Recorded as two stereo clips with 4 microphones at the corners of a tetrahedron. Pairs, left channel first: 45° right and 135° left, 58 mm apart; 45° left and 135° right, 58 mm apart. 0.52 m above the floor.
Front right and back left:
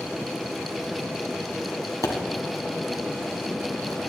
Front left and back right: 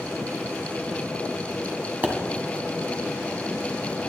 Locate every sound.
2.0 s a pop: 70° right, 1.8 m